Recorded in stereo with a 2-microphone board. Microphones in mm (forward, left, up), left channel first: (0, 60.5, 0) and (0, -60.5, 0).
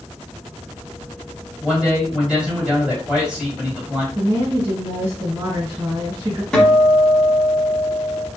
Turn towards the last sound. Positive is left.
turn(degrees=5)  # may be behind; listen again after turning